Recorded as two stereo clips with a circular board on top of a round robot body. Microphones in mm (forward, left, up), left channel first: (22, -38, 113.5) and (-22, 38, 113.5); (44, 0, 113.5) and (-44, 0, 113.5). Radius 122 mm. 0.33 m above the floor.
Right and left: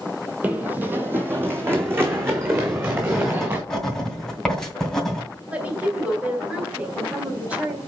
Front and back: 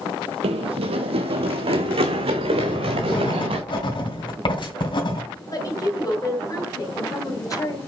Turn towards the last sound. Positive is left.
turn(degrees=45)